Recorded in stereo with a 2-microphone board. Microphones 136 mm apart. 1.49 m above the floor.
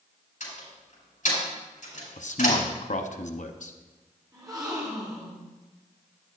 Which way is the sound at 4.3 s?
30° right (ahead or behind).